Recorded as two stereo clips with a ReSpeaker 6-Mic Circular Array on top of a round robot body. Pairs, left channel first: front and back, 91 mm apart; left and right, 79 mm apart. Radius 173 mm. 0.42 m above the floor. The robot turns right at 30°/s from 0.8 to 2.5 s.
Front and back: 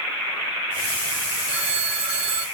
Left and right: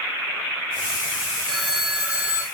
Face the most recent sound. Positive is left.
turn(degrees=-155)